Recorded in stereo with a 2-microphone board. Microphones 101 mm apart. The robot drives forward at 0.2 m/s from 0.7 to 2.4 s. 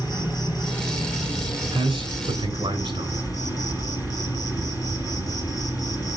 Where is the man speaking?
55° right (ahead or behind), 3 m.